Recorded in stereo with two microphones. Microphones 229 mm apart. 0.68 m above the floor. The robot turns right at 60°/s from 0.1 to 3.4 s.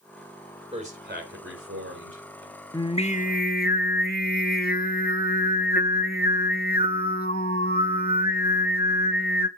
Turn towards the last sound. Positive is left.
turn(degrees=60)